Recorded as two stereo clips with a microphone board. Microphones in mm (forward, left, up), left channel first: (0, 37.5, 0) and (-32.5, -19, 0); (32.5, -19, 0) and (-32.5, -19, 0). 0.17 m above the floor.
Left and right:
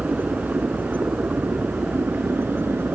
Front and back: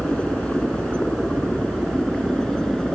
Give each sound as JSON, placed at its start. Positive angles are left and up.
{"t": 0.0, "sound": "a helicopter", "azimuth_deg": -70}